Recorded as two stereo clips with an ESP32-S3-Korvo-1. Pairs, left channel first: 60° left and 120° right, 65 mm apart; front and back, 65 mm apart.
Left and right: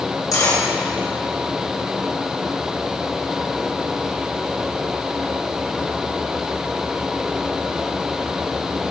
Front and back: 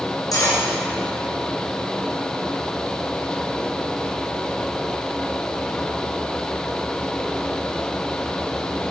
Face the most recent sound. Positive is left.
turn(degrees=25)